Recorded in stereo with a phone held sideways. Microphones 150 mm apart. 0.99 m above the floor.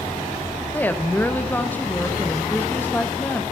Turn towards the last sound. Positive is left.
turn(degrees=10)  # may be behind; listen again after turning